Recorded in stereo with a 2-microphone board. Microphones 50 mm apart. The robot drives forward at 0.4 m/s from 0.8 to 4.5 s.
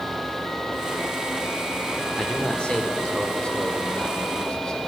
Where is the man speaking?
20° left (ahead or behind), 1.6 m; by 4.8 s 15° left (ahead or behind), 2 m.